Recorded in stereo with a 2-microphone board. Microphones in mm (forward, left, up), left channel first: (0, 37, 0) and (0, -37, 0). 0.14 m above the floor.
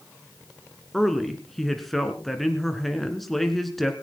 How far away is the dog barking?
I don't hear a dog barking.